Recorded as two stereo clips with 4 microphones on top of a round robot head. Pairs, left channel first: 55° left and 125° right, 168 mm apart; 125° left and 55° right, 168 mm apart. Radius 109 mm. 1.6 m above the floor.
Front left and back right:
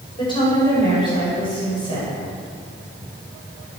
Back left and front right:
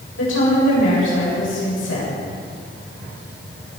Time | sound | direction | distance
0.2 | a woman speaking | 120° left | 7.5 m